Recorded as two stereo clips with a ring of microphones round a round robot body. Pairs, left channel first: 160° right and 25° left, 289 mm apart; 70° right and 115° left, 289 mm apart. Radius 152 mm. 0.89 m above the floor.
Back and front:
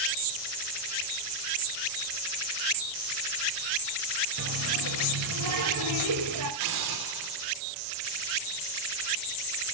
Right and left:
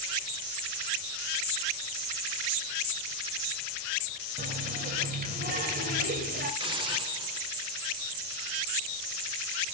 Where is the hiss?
40° left, 3 m.